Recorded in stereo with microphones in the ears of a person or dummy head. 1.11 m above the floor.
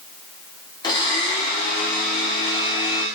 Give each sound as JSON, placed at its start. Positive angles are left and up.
{"t": 0.8, "sound": "a blender", "side_deg": 25, "distance_m": 1.9}